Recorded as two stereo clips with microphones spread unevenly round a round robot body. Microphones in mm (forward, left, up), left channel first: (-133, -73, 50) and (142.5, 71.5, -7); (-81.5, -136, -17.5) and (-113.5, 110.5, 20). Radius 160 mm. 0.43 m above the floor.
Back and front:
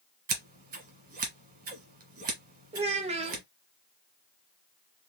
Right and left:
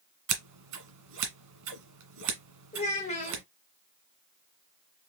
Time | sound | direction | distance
0.3 | scissors | 90° left | 1.5 m
2.7 | a child speaking | 30° right | 0.6 m